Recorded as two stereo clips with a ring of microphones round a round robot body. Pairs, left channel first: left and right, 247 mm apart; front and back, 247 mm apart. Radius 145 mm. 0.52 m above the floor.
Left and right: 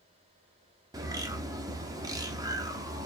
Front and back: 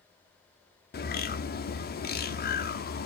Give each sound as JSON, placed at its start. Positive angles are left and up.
{"t": 0.9, "sound": "a bird", "azimuth_deg": -20, "distance_m": 0.8}